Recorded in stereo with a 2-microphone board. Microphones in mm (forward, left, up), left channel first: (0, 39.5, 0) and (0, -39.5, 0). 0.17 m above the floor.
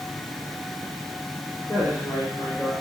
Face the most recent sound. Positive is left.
turn(degrees=35)  # may be behind; listen again after turning